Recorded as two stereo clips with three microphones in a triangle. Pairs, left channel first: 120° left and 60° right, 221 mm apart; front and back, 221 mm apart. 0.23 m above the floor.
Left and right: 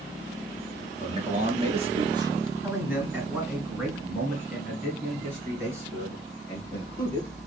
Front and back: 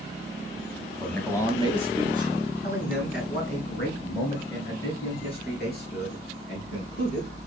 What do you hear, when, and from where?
1.0 s a man speaking: 85° right, 1.1 m; by 7.3 s 40° left, 4 m